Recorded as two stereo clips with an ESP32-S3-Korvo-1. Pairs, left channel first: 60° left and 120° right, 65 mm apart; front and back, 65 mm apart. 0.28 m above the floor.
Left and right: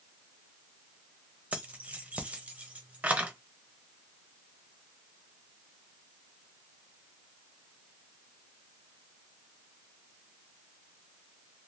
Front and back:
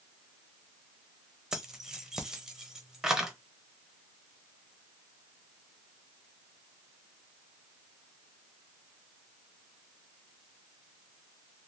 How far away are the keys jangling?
About 0.7 m.